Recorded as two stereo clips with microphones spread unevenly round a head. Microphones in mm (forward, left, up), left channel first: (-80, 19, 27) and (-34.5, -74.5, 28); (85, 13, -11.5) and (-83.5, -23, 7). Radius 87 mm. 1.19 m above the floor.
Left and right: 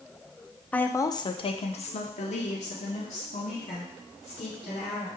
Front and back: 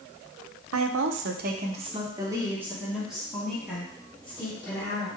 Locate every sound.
0.7 s a woman speaking: 165° right, 0.6 m; by 5.1 s 95° left, 2.5 m